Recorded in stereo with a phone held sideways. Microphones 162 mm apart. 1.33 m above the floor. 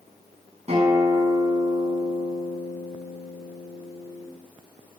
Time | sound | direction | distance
0.7 | a guitar | 45° right (ahead or behind) | 4.5 m